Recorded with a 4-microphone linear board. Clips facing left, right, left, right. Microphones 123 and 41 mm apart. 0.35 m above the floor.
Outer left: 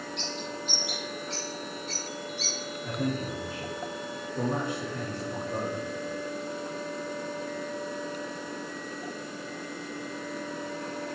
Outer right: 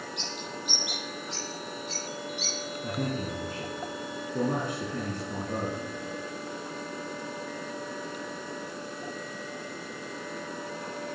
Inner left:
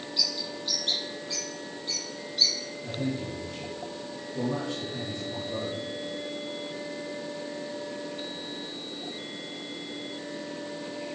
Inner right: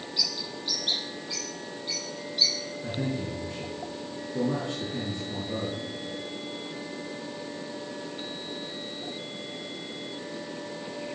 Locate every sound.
0.2 s a bird: 15° right (ahead or behind), 8 m
2.8 s a man speaking: 50° right (ahead or behind), 6 m